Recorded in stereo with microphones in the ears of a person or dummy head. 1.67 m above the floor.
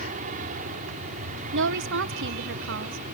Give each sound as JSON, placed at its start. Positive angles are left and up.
{"t": 0.0, "sound": "an aircraft", "side_deg": -45}
{"t": 1.5, "sound": "a woman speaking", "side_deg": -60}